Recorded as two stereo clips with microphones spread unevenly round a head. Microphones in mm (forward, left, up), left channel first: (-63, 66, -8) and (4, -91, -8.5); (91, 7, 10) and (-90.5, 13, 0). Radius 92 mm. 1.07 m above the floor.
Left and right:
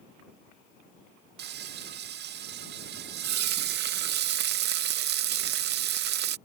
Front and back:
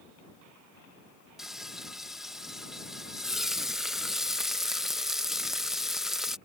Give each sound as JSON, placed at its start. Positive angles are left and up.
{"t": 1.4, "sound": "frying", "azimuth_deg": -95}